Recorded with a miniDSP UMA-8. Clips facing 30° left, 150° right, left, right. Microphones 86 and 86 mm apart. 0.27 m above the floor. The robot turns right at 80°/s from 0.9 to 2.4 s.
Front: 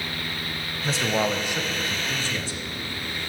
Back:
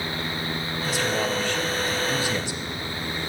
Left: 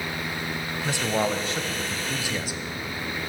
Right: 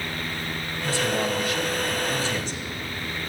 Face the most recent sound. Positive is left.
turn(degrees=160)